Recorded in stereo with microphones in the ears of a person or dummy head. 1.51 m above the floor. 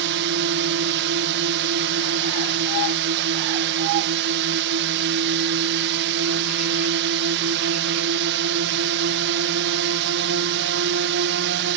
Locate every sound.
0.0 s a drone: 60° right (ahead or behind)